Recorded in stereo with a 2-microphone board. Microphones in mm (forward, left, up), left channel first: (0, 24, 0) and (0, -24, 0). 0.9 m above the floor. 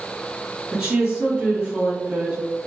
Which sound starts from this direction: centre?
A woman speaking, at 0.7 s.